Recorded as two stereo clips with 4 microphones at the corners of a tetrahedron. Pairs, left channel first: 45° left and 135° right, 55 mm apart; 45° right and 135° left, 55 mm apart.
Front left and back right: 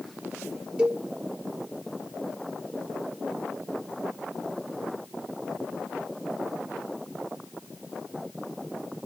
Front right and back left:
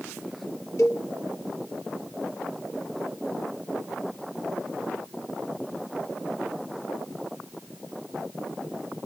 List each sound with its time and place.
0.8 s a cowbell: 65° right, 1.4 m